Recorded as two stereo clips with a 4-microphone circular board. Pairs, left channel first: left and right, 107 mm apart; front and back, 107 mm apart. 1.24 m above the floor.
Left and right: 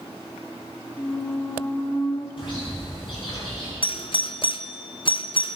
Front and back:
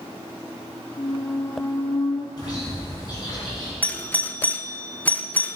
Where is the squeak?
40° left, 1.5 m.